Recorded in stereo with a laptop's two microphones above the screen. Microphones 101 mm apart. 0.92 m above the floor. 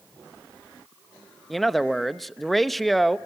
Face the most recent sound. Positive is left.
turn(degrees=0)  # may be behind; listen again after turning